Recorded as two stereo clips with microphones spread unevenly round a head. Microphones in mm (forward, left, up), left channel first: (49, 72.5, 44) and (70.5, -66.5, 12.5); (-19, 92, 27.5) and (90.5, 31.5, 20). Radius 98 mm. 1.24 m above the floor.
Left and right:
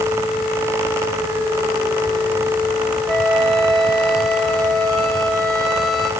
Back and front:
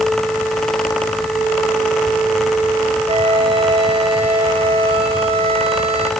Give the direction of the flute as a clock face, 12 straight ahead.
12 o'clock.